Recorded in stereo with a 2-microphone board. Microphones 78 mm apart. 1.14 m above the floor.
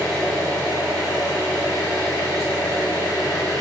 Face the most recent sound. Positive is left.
turn(degrees=50)  # may be behind; listen again after turning